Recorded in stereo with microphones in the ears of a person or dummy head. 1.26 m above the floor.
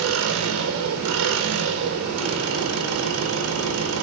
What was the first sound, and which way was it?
An engine running, 90° right.